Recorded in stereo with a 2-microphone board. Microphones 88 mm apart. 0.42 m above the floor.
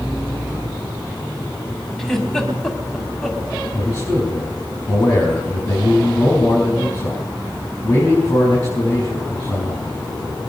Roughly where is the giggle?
Centre.